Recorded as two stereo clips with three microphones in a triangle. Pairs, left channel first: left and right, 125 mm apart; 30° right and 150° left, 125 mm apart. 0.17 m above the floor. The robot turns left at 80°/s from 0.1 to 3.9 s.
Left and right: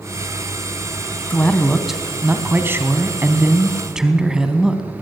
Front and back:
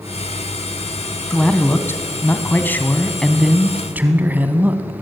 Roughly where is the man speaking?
Ahead left.